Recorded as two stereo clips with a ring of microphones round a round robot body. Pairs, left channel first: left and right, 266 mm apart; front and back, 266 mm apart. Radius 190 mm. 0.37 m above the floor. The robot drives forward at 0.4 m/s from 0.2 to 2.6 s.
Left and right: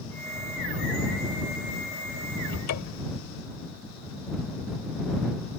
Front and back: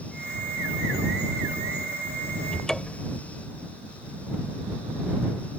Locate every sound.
2.5 s a cupboard door: 85° left; by 3.2 s 90° left